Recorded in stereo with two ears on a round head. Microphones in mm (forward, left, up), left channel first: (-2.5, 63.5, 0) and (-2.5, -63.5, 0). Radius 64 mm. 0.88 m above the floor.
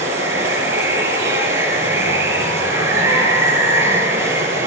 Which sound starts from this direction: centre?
Running water, at 0.0 s.